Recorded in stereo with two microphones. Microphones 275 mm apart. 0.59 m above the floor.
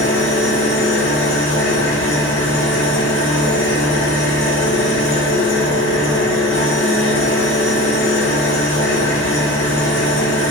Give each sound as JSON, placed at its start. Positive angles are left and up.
{"t": 0.0, "sound": "an engine running", "side_deg": 45, "distance_m": 1.2}